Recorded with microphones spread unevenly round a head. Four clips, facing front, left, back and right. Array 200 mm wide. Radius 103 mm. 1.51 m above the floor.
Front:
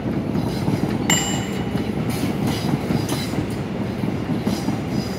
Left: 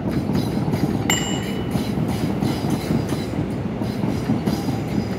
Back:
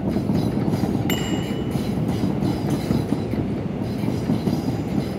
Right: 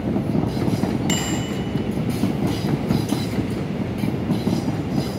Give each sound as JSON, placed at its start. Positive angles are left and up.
{"t": 1.1, "sound": "a bicycle bell", "azimuth_deg": 60, "distance_m": 6.0}